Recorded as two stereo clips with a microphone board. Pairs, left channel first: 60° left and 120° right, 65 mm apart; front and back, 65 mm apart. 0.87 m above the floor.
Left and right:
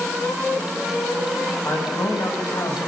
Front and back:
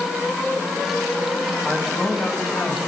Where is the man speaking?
100° left, 6.5 m; by 2.8 s 85° left, 6.5 m.